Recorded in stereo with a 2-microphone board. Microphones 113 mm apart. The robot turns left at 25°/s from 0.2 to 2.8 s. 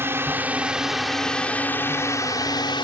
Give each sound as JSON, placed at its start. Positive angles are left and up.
{"t": 0.0, "sound": "a drone", "azimuth_deg": -160}